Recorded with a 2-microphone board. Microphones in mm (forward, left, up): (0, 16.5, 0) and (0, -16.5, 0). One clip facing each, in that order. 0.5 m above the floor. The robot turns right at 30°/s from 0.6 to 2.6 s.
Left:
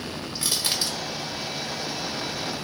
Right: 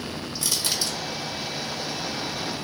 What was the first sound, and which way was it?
Crushing, 40° left (ahead or behind).